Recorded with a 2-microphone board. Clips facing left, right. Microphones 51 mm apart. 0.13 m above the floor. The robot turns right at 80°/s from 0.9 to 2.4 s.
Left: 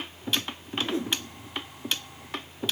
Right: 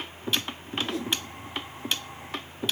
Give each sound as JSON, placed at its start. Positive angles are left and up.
{"t": 0.8, "sound": "a whoosh", "side_deg": 25, "distance_m": 2.5}